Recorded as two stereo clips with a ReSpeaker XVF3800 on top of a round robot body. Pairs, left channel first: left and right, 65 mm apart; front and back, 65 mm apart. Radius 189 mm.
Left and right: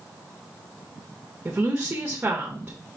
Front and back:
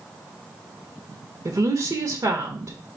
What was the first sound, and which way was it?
A woman speaking, 155° right.